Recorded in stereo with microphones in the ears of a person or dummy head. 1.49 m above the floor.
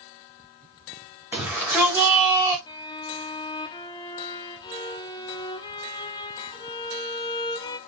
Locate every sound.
1.3 s a shout: 10° right (ahead or behind), 4.5 m; by 2.6 s 15° right (ahead or behind), 4 m
2.7 s a violin: 25° left (ahead or behind), 0.7 m